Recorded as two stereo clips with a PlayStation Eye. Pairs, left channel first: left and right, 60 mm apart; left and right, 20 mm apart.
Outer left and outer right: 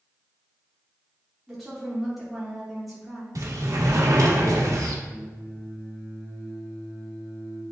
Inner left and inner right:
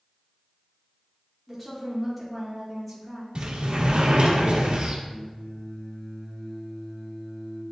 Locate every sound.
1.5 s a woman speaking: centre (ahead or behind), 2 m
3.4 s a sliding door: 65° right (ahead or behind), 1.2 m
5.1 s singing: 35° left (ahead or behind), 2.5 m